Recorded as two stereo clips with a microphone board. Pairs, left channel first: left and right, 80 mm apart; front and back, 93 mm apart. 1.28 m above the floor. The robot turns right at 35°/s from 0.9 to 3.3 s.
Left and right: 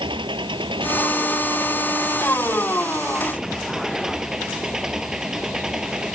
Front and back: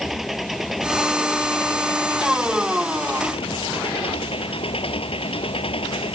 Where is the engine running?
90° right; by 6.2 s 10° right.